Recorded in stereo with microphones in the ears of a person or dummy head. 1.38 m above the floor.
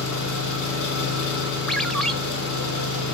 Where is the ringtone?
5° left (ahead or behind), 0.5 m.